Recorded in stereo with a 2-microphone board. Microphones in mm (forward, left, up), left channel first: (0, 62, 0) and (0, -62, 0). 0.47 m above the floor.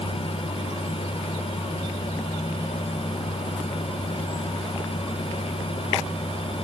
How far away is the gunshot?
No gunshot in this recording.